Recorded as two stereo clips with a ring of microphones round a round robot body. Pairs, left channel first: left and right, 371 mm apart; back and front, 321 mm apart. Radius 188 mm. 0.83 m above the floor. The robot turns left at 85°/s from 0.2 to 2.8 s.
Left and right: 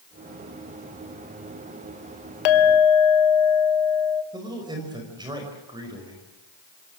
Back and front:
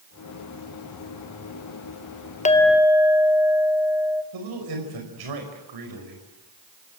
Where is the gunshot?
I don't hear a gunshot.